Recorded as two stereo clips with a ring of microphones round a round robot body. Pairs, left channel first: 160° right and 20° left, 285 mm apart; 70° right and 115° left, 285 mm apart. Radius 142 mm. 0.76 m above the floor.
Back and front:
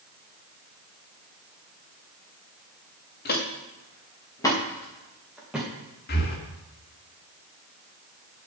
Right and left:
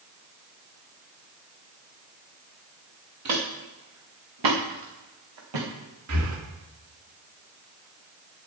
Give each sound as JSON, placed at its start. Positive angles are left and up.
{"t": 3.2, "sound": "footsteps", "azimuth_deg": 145, "distance_m": 3.5}
{"t": 6.1, "sound": "breathing", "azimuth_deg": 150, "distance_m": 1.9}